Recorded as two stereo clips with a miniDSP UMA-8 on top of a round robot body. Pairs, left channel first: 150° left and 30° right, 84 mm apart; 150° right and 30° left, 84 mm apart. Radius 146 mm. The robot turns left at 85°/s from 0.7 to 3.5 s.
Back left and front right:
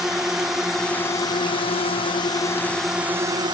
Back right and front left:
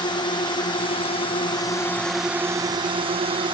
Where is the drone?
115° right; by 3.5 s 5° left.